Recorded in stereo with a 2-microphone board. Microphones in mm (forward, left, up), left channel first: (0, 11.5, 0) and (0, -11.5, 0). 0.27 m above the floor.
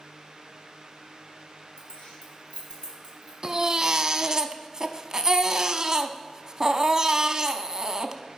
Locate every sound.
1.8 s keys jangling: 75° left (ahead or behind), 2.5 m; by 3.3 s 70° left (ahead or behind), 4 m
3.4 s a baby crying: 35° right (ahead or behind), 0.5 m